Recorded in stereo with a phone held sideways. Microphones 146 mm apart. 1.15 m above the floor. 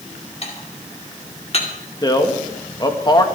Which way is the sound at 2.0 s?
30° left (ahead or behind).